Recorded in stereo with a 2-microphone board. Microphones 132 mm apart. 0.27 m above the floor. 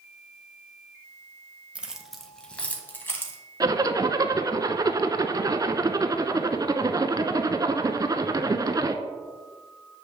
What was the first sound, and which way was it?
Keys jangling, 10° right (ahead or behind).